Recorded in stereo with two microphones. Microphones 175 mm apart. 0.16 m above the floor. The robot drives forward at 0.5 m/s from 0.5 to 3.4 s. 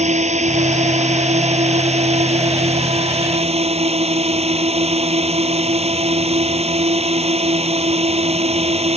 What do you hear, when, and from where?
0.0 s a drone: 40° right (ahead or behind); by 9.0 s 35° right (ahead or behind)